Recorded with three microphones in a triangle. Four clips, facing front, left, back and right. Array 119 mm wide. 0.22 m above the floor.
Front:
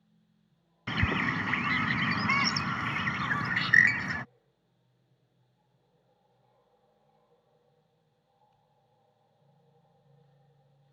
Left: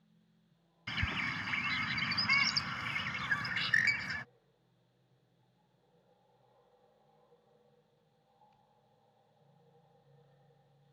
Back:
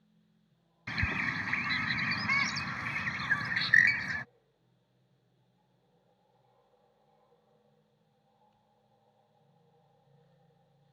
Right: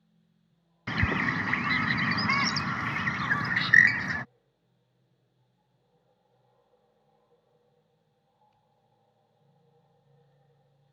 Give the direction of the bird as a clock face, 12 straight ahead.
2 o'clock.